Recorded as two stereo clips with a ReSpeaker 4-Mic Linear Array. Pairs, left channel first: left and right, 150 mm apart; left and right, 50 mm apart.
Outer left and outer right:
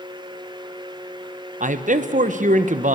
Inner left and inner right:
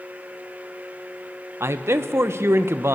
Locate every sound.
1.6 s a man speaking: 55° right (ahead or behind), 0.8 m